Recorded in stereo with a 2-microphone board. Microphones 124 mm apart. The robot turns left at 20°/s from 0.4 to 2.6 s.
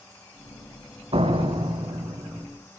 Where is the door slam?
55° right (ahead or behind), 3 m; by 2.5 s 25° right (ahead or behind), 3 m.